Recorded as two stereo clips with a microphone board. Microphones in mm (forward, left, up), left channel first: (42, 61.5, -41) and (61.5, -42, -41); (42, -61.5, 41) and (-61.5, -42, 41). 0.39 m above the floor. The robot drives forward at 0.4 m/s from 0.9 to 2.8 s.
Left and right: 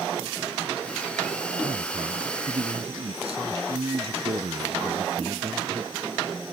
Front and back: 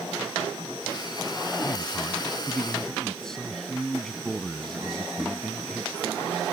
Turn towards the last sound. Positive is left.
turn(degrees=-95)